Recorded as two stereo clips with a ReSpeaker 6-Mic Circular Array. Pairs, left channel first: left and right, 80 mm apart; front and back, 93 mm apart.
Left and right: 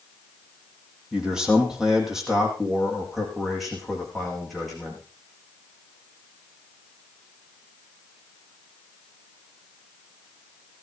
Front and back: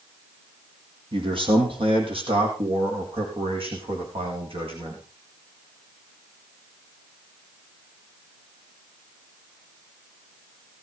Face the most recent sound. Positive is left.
turn(degrees=180)